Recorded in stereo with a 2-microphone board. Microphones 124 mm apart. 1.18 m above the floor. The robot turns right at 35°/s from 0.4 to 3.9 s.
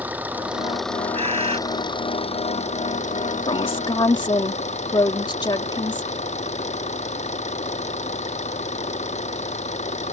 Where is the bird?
60° right (ahead or behind); by 1.6 s 55° right (ahead or behind).